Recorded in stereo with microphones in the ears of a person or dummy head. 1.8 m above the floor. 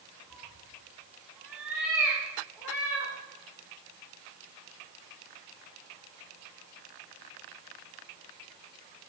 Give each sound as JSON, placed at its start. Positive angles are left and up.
{"t": 0.3, "sound": "a cat meowing", "side_deg": -5, "distance_m": 2.5}